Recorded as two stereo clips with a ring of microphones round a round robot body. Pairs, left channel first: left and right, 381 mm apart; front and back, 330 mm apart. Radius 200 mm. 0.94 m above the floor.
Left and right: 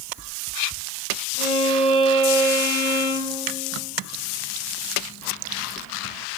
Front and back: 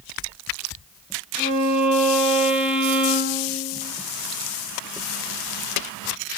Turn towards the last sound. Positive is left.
turn(degrees=-85)